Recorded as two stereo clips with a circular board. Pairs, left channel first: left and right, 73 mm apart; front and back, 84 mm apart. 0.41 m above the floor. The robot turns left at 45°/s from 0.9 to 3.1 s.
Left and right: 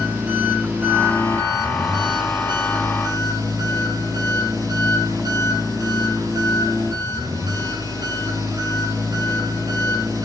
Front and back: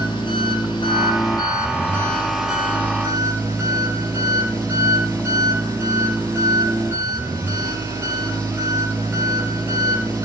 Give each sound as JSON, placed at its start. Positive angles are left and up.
{"t": 0.0, "sound": "an engine running", "azimuth_deg": -20, "distance_m": 5.0}